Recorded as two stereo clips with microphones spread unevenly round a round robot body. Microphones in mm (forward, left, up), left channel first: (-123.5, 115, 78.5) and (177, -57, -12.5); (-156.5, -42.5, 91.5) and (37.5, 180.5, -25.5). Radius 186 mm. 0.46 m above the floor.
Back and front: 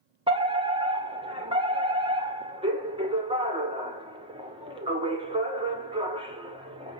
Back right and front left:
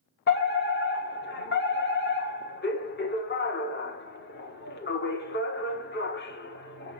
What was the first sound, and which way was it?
A fire alarm, 60° right.